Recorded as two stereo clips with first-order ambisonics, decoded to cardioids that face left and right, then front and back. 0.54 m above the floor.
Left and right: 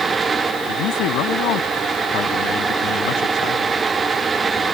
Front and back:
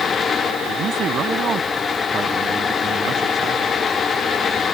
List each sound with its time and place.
0.7 s a man speaking: 120° left